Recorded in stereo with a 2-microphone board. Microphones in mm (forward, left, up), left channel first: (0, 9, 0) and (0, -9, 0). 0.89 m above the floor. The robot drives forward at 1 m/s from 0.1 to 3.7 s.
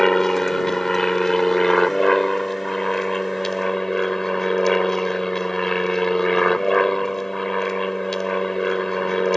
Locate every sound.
0.0 s an aircraft: 30° left (ahead or behind); by 9.4 s 25° left (ahead or behind)